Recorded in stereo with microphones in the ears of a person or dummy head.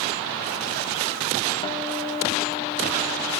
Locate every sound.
1.6 s a guitar: 25° left (ahead or behind), 1.4 m